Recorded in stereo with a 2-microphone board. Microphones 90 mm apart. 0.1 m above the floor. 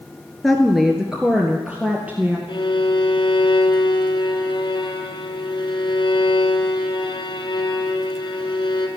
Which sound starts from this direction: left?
A violin, at 2.5 s.